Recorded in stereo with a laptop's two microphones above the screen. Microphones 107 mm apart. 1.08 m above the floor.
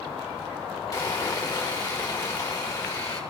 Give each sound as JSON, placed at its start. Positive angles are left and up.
{"t": 0.9, "sound": "sawing", "side_deg": 35, "distance_m": 1.7}